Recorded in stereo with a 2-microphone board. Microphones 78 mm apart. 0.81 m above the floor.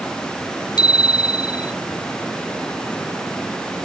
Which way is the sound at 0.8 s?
65° left (ahead or behind).